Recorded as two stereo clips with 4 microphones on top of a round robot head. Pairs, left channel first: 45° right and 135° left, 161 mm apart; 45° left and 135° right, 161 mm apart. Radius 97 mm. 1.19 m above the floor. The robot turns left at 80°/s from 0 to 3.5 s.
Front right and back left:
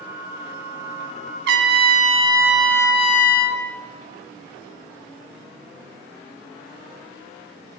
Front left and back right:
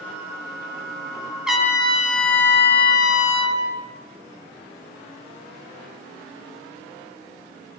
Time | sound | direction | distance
1.5 | a trumpet | 135° left | 1.4 m